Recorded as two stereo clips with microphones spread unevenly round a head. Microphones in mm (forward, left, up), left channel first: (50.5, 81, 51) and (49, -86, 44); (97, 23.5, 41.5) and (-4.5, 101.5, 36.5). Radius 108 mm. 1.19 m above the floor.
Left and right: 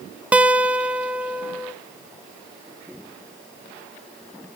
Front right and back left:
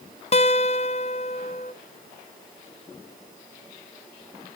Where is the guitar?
10° right, 0.9 m.